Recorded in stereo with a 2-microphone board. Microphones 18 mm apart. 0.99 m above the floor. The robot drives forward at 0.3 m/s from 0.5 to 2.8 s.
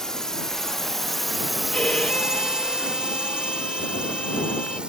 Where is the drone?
35° left (ahead or behind); by 4.9 s 65° right (ahead or behind).